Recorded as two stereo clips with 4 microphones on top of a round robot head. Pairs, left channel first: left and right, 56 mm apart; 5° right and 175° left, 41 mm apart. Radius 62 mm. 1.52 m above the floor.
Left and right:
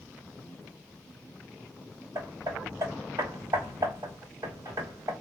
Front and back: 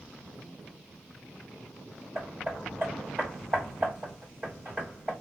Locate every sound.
2.1 s hammering: 120° right, 2 m